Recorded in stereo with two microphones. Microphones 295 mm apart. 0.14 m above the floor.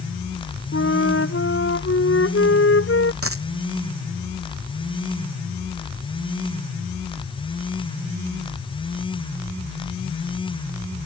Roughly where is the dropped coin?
Right.